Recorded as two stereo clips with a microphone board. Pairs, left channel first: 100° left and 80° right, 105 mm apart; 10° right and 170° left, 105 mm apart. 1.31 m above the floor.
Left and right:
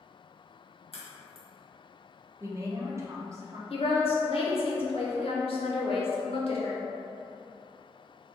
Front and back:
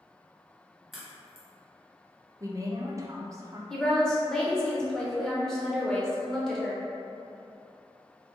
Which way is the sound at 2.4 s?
130° right.